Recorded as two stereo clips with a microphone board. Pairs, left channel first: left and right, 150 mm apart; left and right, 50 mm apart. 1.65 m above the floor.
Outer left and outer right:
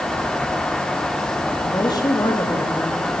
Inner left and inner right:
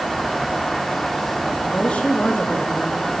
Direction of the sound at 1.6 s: 25° left (ahead or behind).